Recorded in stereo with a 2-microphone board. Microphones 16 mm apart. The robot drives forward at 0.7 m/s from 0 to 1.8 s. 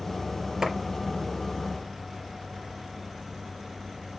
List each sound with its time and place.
0.6 s a clap: 45° right (ahead or behind), 5 m; by 0.7 s 40° right (ahead or behind), 5 m